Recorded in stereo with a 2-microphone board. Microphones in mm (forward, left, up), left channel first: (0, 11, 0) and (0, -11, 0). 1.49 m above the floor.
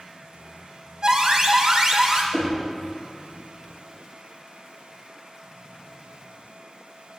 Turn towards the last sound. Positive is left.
turn(degrees=0)  # may be behind; listen again after turning